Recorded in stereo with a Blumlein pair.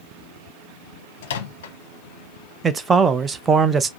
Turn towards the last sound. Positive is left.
turn(degrees=-15)